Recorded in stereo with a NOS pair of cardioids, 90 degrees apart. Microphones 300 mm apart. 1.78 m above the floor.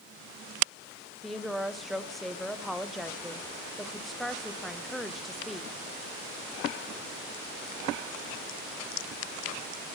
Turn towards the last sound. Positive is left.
turn(degrees=0)